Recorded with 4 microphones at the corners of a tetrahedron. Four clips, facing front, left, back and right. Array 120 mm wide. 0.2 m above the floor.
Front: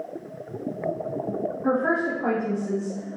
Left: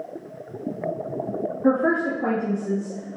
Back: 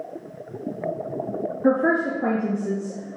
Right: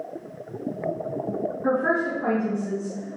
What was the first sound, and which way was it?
A woman speaking, 150° left.